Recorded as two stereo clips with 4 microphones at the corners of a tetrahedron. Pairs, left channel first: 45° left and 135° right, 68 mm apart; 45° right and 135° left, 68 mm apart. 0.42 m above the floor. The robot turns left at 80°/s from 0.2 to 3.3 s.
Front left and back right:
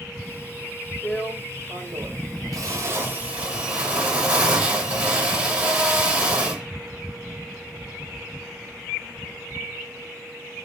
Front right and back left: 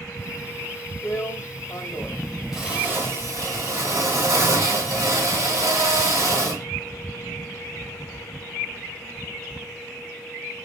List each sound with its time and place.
1.0 s a drill: 20° right, 1.9 m; by 6.7 s 155° left, 1.9 m